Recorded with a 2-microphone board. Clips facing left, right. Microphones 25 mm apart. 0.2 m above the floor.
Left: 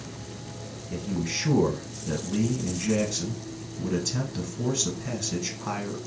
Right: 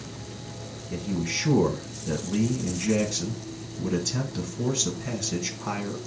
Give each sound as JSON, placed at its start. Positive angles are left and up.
{"t": 0.9, "sound": "a man speaking", "side_deg": -5, "distance_m": 1.2}